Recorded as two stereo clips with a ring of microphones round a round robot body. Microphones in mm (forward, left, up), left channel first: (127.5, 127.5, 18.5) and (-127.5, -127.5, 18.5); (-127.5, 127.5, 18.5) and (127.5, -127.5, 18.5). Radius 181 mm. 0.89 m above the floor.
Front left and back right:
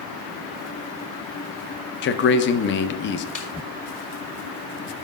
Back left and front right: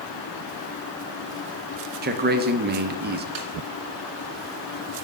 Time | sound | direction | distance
2.0 | a man speaking | 5° left | 0.6 m
3.4 | a snare drum | 30° right | 2 m